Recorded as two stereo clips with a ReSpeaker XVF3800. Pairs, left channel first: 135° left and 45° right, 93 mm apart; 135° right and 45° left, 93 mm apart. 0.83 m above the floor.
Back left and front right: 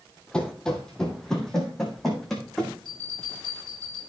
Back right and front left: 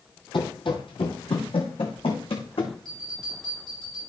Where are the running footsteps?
145° right, 1.5 m; by 2.8 s 135° right, 3 m.